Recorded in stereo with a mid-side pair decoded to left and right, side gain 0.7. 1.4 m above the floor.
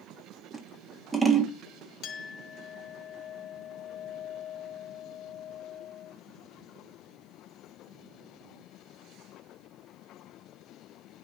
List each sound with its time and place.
0.5 s scissors: 10° right, 1.7 m
2.0 s a clink: 50° left, 1.1 m